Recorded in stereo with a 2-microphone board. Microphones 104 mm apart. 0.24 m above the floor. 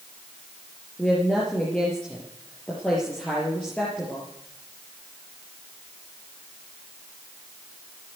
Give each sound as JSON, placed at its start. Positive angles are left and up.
{"t": 1.0, "sound": "a woman speaking", "side_deg": 5, "distance_m": 5.0}